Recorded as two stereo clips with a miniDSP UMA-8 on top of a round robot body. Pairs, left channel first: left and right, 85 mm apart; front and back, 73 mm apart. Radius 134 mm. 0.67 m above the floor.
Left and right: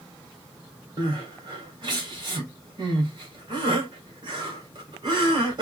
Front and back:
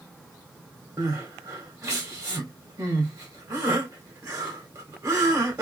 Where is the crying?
130° right, 2.5 m.